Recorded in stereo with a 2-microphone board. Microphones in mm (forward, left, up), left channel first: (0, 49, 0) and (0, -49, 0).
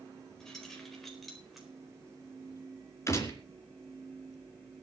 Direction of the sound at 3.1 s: 30° left (ahead or behind).